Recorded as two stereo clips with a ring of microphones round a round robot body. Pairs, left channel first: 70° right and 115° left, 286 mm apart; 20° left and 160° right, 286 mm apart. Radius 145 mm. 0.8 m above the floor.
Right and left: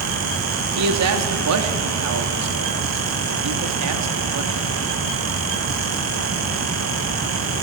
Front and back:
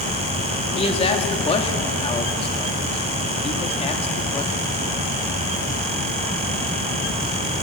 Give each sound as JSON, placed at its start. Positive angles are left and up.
{"t": 0.8, "sound": "a man speaking", "azimuth_deg": 90, "distance_m": 1.9}